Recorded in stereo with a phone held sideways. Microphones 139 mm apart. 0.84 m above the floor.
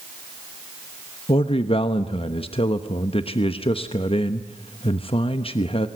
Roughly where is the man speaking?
Left.